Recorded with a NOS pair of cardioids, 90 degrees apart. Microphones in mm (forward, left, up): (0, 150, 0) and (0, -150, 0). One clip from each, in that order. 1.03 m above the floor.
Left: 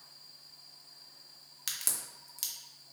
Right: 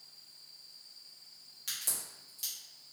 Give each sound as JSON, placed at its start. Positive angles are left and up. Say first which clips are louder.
{"t": 1.7, "sound": "a crack", "louder": "left 1 dB", "azimuth_deg": 50, "distance_m": 1.1}